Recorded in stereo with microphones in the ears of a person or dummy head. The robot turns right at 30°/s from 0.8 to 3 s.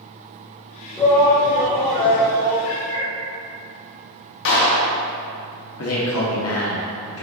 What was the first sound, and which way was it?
A shout, 10° left.